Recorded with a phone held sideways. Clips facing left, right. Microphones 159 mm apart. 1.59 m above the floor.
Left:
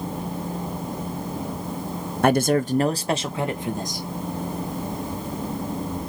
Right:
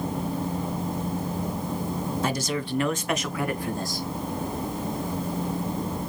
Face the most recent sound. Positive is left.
turn(degrees=15)  # may be behind; listen again after turning